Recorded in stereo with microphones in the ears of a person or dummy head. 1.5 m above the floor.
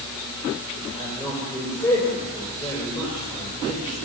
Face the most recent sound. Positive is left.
turn(degrees=25)  # may be behind; listen again after turning